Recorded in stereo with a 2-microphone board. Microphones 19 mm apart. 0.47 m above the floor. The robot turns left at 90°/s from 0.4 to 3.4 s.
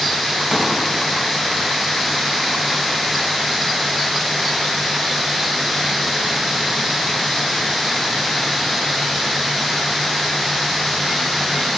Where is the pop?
70° right (ahead or behind), 2.5 m; by 0.8 s 60° right (ahead or behind), 2.5 m.